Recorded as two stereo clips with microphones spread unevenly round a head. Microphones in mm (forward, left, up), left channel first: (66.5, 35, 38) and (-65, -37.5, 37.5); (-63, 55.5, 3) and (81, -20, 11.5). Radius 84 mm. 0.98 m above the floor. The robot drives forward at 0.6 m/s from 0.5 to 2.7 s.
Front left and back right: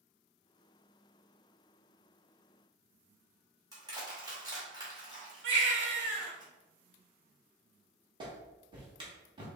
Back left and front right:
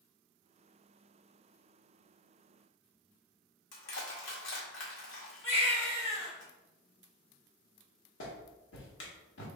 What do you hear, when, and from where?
3.7 s crushing: 145° left, 1.8 m
5.4 s a baby crying: 150° right, 1.2 m
8.2 s a clap: 150° left, 1.4 m